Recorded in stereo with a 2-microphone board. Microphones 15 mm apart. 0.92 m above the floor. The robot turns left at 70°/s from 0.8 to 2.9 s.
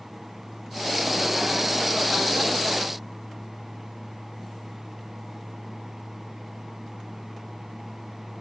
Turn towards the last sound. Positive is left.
No sound to turn to.